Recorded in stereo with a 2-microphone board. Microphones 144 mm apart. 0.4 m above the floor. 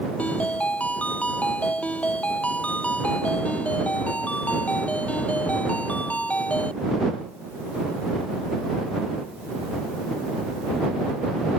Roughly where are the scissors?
I don't hear scissors.